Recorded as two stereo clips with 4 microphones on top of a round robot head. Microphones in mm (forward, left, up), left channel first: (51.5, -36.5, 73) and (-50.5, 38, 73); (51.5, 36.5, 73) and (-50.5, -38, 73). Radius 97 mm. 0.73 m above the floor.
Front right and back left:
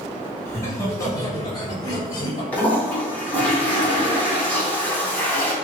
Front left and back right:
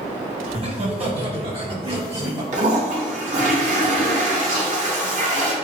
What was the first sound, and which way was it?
Laughter, 105° right.